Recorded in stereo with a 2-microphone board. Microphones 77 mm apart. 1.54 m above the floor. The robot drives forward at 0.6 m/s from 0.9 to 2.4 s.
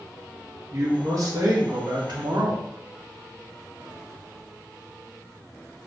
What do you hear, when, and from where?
0.7 s a man speaking: 45° right (ahead or behind), 1.0 m; by 2.6 s 70° right (ahead or behind), 0.7 m